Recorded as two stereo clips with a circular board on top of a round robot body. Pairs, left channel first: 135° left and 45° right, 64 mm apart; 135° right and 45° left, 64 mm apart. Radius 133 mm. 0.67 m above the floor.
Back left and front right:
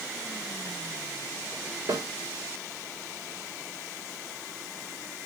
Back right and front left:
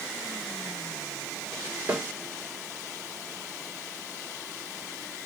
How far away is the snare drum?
About 2 m.